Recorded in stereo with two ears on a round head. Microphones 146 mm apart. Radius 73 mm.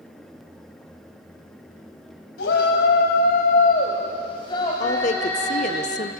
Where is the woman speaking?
45° left (ahead or behind), 1.1 m.